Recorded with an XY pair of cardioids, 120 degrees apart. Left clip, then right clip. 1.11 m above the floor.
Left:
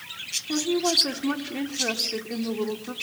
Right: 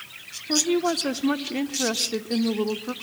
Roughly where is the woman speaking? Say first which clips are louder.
Right 2 dB; ahead right.